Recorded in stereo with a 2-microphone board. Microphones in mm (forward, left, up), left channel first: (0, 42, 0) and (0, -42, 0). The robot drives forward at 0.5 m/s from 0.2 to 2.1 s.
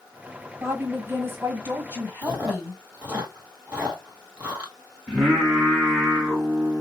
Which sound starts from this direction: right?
A woman speaking, at 0.6 s.